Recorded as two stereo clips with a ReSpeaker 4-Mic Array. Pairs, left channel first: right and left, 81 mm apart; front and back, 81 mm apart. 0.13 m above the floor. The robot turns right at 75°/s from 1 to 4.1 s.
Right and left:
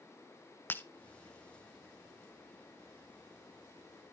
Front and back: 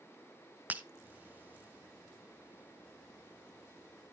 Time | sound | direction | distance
0.7 | breaking glass | 125° right | 0.7 m